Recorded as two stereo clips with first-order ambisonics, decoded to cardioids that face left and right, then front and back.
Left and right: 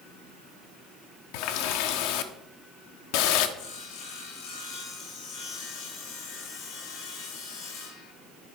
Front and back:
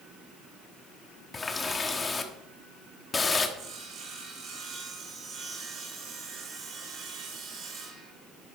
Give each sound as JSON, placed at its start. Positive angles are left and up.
{"t": 1.3, "sound": "a running tap", "azimuth_deg": 75, "distance_m": 1.1}
{"t": 3.6, "sound": "sawing", "azimuth_deg": 125, "distance_m": 3.0}